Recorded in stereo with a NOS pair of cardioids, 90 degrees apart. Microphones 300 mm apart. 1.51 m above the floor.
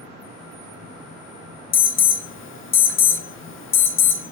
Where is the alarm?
45° left, 1.0 m.